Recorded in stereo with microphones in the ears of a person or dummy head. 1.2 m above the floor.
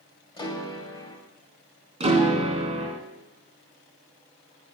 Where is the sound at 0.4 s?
20° left (ahead or behind), 2.5 m.